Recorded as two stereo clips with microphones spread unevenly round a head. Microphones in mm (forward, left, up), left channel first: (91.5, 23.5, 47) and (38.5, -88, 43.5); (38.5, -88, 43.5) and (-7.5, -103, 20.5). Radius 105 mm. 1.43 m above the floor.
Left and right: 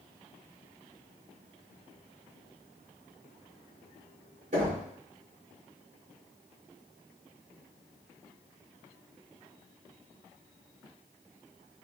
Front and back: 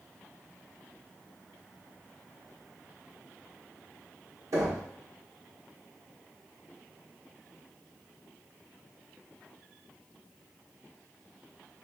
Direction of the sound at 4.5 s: 160° right.